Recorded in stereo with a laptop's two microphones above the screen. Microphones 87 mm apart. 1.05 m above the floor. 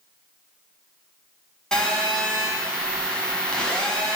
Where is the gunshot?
No gunshot in this recording.